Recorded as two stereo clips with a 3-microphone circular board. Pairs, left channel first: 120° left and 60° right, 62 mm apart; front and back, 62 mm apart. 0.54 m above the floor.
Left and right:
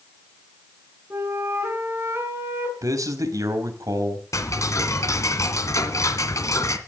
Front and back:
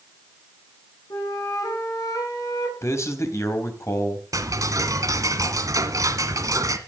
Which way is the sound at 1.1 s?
5° right.